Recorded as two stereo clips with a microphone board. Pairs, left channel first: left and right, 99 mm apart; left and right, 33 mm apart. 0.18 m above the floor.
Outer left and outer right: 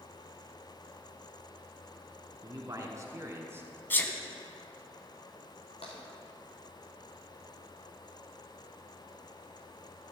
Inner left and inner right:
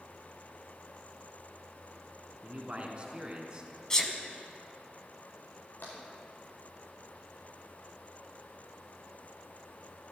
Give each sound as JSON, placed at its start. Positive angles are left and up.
{"t": 2.4, "sound": "a man speaking", "side_deg": -35, "distance_m": 2.5}
{"t": 3.9, "sound": "a sneeze", "side_deg": 20, "distance_m": 1.3}
{"t": 5.8, "sound": "tapping", "side_deg": 85, "distance_m": 4.5}